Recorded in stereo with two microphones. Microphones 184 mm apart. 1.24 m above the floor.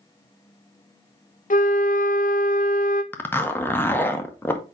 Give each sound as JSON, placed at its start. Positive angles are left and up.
{"t": 1.5, "sound": "a flute", "side_deg": 45, "distance_m": 0.6}
{"t": 3.1, "sound": "a zipper", "side_deg": 10, "distance_m": 0.6}